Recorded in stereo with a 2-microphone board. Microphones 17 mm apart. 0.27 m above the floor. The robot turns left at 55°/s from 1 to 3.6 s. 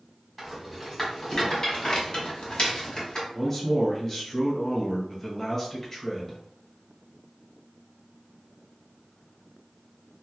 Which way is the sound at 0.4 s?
15° left (ahead or behind).